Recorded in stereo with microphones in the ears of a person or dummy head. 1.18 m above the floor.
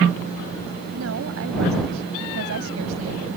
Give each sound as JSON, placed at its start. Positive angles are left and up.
{"t": 0.9, "sound": "a woman speaking", "side_deg": -85}